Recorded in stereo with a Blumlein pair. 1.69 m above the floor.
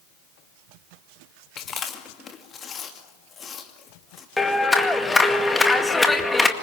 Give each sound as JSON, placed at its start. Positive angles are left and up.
{"t": 1.6, "sound": "chewing", "azimuth_deg": 25, "distance_m": 2.5}
{"t": 4.4, "sound": "a clap", "azimuth_deg": 10, "distance_m": 2.0}